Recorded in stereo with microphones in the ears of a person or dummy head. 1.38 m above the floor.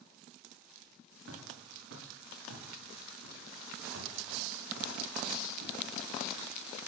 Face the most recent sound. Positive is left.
turn(degrees=-75)  # may be behind; listen again after turning